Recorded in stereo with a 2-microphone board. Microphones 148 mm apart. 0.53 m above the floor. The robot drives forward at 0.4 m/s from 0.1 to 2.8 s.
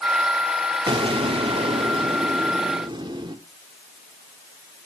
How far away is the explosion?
About 0.8 m.